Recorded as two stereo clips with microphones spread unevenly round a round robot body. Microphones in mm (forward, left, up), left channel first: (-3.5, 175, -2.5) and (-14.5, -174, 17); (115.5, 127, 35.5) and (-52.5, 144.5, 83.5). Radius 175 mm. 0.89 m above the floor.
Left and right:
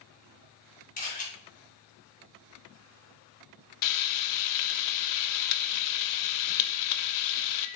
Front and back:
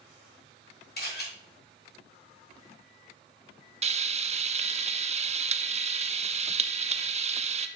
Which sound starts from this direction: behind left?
Frying, at 3.8 s.